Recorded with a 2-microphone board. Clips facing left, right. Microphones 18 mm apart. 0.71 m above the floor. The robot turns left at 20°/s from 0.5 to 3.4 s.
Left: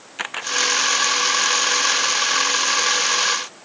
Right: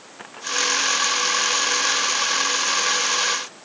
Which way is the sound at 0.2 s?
85° left.